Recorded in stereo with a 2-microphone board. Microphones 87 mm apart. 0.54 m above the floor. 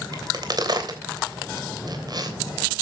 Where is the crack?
50° right (ahead or behind), 3 m.